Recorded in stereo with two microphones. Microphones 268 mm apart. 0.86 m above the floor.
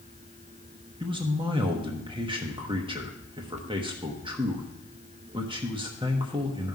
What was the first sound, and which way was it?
A man speaking, 20° right (ahead or behind).